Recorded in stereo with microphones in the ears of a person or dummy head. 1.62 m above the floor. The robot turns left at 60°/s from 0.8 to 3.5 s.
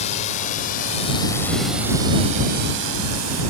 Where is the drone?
40° left (ahead or behind); by 3.5 s 80° right.